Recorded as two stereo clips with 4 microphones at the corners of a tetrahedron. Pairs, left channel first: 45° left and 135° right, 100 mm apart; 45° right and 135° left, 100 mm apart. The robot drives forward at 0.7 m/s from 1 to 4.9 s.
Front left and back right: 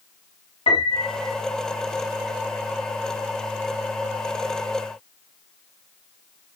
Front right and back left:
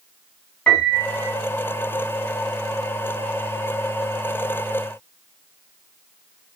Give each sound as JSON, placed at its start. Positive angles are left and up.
{"t": 0.7, "sound": "a piano", "azimuth_deg": 35, "distance_m": 4.5}